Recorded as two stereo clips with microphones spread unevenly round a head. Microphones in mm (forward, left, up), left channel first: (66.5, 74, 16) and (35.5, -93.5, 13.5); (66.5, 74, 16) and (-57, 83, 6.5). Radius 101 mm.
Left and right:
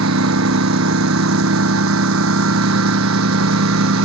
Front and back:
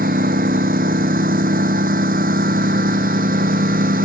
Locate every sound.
0.0 s a lawn mower: 130° right